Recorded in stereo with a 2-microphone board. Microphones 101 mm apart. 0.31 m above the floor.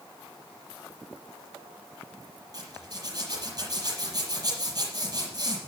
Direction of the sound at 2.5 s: 40° right (ahead or behind).